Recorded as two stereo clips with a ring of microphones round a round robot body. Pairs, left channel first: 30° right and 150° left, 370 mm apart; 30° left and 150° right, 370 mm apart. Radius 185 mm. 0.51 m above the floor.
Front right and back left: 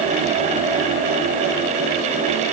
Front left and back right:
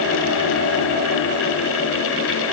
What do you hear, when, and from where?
Only background noise.